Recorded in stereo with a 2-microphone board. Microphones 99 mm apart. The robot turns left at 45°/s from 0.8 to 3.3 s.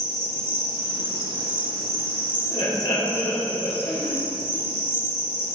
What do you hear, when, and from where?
0.0 s an insect: 95° right, 2.5 m; by 5.5 s 155° left, 2.5 m
2.5 s laughter: 85° left, 2 m; by 4.2 s 50° left, 2 m